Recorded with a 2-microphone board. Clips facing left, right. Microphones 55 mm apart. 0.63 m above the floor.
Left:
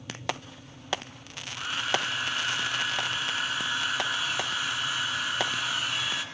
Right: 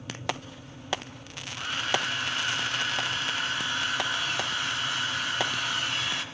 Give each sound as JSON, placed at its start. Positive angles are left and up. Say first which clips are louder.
{"t": 1.5, "sound": "a hair dryer", "louder": "even", "side_deg": 5, "distance_m": 4.0}